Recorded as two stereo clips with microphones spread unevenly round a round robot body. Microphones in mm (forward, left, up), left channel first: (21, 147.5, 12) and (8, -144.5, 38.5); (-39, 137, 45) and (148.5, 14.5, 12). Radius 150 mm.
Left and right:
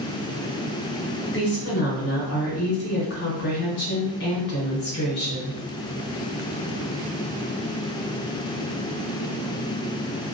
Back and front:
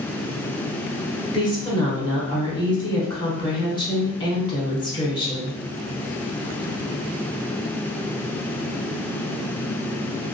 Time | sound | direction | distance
1.3 | a woman speaking | 75° left | 1.3 m